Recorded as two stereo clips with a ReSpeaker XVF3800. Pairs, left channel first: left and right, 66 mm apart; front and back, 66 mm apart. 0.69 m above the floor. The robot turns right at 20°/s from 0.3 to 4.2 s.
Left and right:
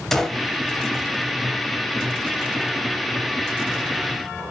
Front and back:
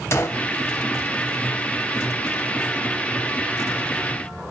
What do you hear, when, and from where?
0.1 s a gunshot: 10° left, 0.6 m